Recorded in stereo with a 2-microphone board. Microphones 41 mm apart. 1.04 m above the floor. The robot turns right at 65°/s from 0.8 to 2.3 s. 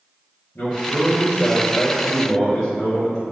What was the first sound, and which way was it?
A man speaking, 70° left.